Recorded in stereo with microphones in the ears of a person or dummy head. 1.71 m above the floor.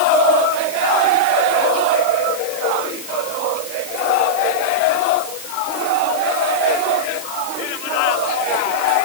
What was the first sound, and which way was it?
Only background noise.